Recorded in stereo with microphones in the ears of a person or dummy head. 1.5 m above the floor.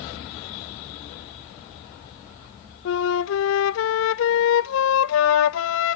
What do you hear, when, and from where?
2.9 s a flute: 65° left (ahead or behind), 0.5 m